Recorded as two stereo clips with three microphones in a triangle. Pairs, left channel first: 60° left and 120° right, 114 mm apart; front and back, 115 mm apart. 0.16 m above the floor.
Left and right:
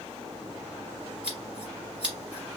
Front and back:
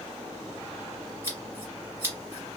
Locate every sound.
1.2 s scissors: 175° left, 1.4 m